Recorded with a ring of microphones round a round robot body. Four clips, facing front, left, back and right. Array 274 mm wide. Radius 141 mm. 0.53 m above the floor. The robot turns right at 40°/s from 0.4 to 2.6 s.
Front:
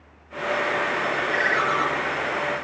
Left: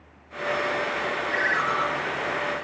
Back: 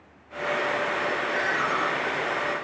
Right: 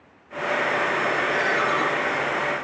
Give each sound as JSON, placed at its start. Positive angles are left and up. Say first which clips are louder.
{"t": 1.3, "sound": "a ringtone", "louder": "right 3 dB, front 3 dB", "azimuth_deg": 5, "distance_m": 4.0}